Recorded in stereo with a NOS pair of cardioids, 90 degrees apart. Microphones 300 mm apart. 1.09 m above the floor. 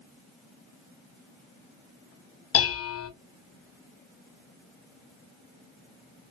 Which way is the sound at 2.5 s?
50° left.